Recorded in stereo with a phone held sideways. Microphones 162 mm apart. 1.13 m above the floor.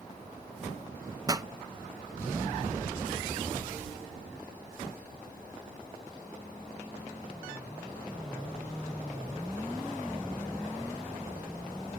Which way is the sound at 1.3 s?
25° right (ahead or behind).